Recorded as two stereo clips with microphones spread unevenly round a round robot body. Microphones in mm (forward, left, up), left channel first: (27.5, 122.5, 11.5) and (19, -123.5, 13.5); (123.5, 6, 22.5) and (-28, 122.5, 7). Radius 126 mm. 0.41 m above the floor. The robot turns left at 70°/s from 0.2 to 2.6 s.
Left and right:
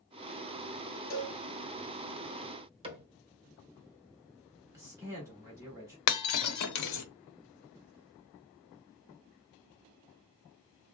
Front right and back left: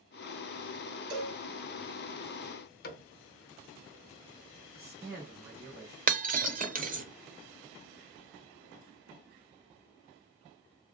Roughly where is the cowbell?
Behind.